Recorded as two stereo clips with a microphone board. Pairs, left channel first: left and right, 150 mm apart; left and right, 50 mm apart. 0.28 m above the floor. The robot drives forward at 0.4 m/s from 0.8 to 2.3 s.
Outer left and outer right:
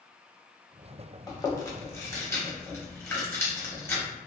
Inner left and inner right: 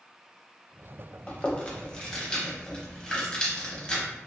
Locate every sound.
1.3 s chewing: 25° left (ahead or behind), 0.7 m; by 4.0 s 15° left (ahead or behind), 0.9 m